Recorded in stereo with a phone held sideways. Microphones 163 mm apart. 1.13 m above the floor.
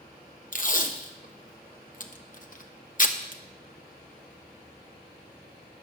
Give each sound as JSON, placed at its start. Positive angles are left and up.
{"t": 0.5, "sound": "tape being pulled", "side_deg": 55, "distance_m": 0.9}